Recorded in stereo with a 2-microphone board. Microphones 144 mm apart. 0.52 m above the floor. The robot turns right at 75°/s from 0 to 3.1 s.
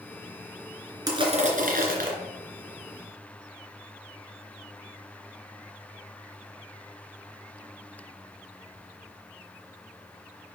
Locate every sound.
1.1 s crushing: 155° right, 2.5 m; by 2.1 s 75° right, 2.5 m